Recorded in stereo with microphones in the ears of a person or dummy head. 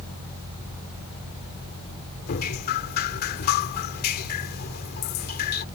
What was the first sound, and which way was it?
Dripping, 50° left (ahead or behind).